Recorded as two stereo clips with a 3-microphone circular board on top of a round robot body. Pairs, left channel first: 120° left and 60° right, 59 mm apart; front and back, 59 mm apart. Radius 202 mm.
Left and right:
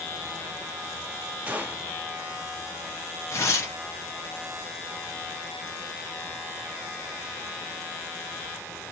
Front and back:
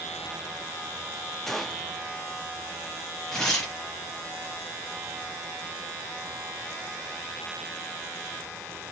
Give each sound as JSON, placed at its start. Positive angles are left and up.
{"t": 1.5, "sound": "a gunshot", "azimuth_deg": -80, "distance_m": 1.0}
{"t": 3.3, "sound": "tearing paper", "azimuth_deg": 80, "distance_m": 0.6}